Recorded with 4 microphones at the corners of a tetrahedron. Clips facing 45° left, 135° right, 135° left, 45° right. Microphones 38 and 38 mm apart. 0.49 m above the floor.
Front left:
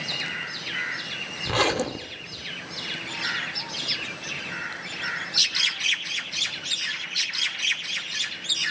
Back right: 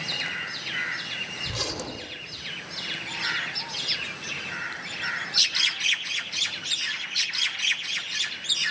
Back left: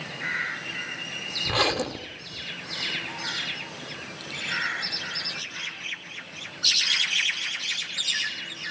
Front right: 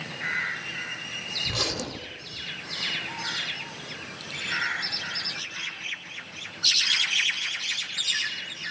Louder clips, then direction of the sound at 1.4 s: Front left 9 dB, back left 9 dB; 80° left.